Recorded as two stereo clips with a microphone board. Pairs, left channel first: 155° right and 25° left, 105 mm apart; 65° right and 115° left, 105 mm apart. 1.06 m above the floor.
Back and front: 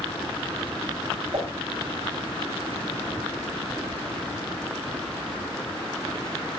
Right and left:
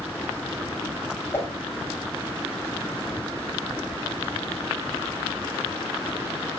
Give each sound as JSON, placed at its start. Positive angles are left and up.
{"t": 1.3, "sound": "a whoosh", "azimuth_deg": 0, "distance_m": 6.0}